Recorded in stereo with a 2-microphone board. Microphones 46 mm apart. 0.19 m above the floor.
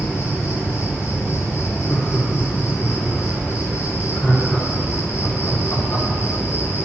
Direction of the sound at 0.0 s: 60° left (ahead or behind).